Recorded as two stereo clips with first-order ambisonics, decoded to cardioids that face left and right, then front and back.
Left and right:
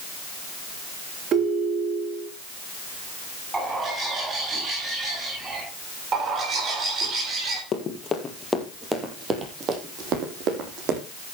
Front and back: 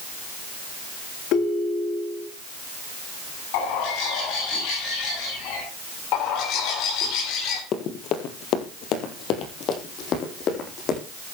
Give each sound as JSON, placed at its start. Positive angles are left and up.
{"t": 1.3, "sound": "a ringtone", "azimuth_deg": -35, "distance_m": 2.0}
{"t": 3.5, "sound": "a bird", "azimuth_deg": -10, "distance_m": 9.5}
{"t": 6.1, "sound": "a bird", "azimuth_deg": -30, "distance_m": 3.5}
{"t": 7.7, "sound": "running footsteps", "azimuth_deg": 40, "distance_m": 2.5}